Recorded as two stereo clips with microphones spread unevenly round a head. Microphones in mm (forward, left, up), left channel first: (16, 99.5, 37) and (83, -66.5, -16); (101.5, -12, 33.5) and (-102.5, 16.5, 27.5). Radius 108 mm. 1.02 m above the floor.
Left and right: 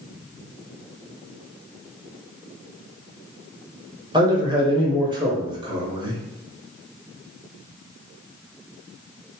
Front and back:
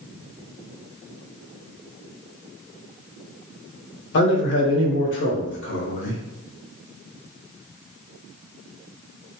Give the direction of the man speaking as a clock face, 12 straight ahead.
1 o'clock.